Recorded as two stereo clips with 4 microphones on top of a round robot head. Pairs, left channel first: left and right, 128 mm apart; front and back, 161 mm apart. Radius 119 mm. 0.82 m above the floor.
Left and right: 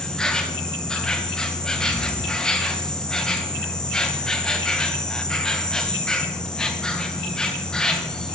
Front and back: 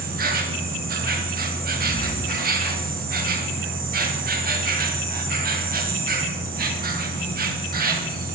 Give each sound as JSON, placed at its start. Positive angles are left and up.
{"t": 0.0, "sound": "an insect", "azimuth_deg": 175, "distance_m": 1.0}